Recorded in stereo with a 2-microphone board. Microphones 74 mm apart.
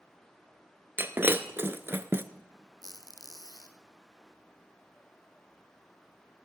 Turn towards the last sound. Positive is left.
turn(degrees=55)  # may be behind; listen again after turning